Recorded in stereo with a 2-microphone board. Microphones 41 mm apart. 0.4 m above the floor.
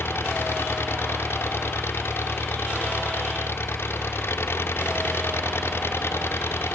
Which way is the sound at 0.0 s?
85° left.